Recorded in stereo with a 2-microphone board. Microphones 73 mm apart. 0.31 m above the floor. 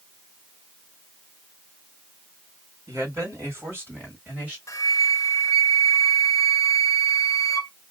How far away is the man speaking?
About 2.5 m.